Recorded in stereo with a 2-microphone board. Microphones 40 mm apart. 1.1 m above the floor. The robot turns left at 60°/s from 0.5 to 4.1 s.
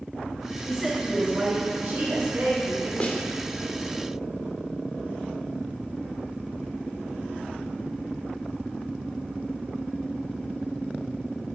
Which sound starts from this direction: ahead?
A woman speaking, at 0.7 s.